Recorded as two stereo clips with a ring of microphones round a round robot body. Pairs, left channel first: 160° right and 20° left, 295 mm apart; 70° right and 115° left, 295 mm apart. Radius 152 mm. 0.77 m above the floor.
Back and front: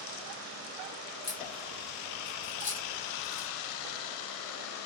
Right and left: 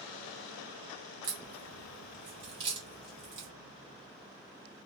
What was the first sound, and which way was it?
A crack, 150° left.